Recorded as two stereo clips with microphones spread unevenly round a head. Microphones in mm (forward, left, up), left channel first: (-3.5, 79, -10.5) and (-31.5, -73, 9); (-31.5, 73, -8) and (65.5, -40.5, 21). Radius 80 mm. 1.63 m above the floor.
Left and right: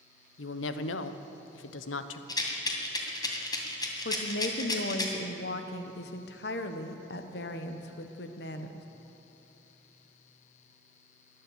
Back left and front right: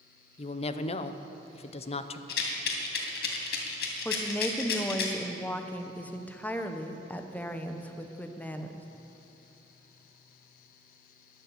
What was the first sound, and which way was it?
A woman speaking, 80° left.